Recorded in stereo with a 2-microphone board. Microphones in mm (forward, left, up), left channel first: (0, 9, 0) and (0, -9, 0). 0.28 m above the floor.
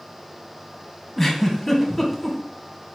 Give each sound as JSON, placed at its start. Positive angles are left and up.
{"t": 1.2, "sound": "a giggle", "side_deg": 15, "distance_m": 1.4}